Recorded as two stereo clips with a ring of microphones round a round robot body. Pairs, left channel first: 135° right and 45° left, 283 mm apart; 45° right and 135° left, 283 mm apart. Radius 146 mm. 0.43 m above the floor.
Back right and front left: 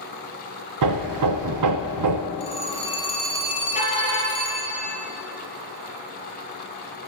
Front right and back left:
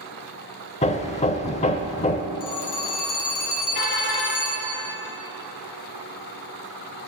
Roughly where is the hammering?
Ahead left.